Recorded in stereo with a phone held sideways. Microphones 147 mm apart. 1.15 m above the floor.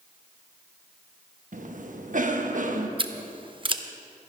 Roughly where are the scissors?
Right.